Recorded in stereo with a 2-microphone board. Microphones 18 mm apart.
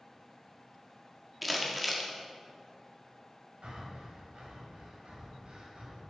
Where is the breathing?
70° right (ahead or behind), 2.5 m.